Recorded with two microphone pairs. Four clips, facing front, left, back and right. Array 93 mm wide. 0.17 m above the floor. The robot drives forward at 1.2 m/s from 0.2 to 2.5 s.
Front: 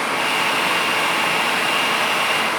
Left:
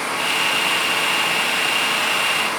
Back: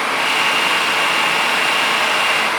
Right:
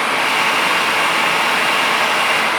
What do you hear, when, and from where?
Only background noise.